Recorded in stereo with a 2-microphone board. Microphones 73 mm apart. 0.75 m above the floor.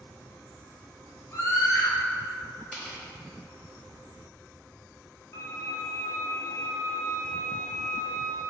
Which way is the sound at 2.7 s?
15° right (ahead or behind).